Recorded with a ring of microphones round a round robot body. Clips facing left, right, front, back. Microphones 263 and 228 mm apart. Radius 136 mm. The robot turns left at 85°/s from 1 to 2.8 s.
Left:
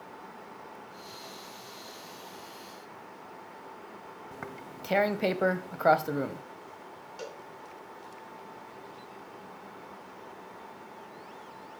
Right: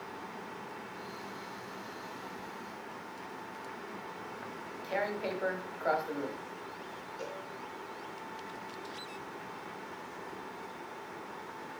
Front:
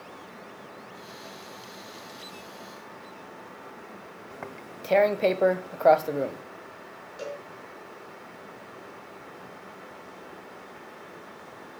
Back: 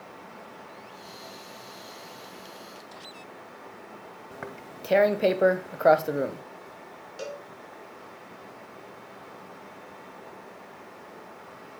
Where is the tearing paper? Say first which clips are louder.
Left 1 dB, back 1 dB; 100° left, 1.0 m.